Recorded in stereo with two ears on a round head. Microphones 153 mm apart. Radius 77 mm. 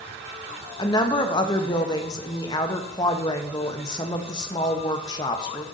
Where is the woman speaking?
25° left (ahead or behind), 0.6 m.